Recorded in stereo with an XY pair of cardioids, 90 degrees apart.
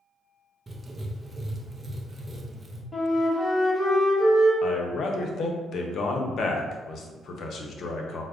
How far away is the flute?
About 1.1 m.